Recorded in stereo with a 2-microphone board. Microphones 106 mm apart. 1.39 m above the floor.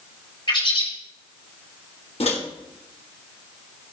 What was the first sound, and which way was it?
A bird, 55° left (ahead or behind).